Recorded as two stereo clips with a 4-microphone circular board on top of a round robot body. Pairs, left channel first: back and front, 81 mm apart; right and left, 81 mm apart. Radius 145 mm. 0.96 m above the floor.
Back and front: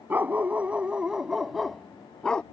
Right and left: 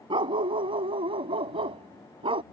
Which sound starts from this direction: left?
A dog barking, at 0.1 s.